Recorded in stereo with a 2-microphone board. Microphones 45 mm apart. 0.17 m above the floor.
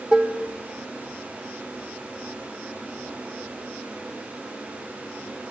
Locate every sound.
0.1 s dishes clattering: 25° right (ahead or behind), 0.8 m